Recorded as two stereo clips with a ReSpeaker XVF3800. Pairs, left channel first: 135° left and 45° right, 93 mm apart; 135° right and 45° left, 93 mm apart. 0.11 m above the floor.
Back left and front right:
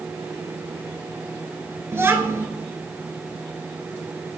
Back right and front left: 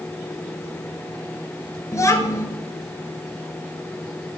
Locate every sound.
1.9 s a child speaking: 95° right, 0.9 m